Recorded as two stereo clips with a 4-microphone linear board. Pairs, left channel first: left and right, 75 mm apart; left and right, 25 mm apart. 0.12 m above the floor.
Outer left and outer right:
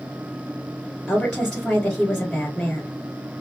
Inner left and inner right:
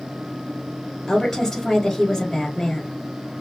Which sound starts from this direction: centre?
A woman speaking, at 1.1 s.